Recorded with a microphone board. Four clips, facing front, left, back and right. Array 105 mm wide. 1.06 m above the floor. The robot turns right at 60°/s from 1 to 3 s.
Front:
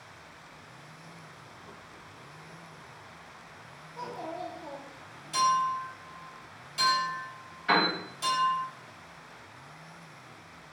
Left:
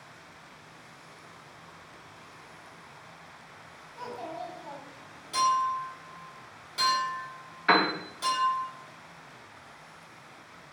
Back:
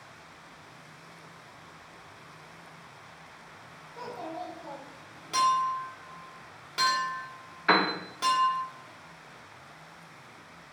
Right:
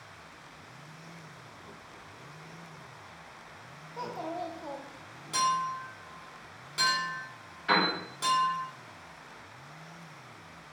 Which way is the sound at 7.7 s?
135° left.